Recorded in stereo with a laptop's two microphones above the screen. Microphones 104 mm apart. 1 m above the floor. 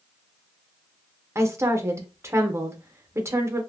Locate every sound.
1.4 s a woman speaking: 25° right (ahead or behind), 0.6 m